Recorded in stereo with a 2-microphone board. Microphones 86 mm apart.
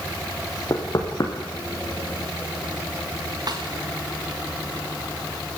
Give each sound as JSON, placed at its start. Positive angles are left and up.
{"t": 0.7, "sound": "knocking", "side_deg": 40, "distance_m": 3.5}
{"t": 3.5, "sound": "a snare drum", "side_deg": -50, "distance_m": 3.0}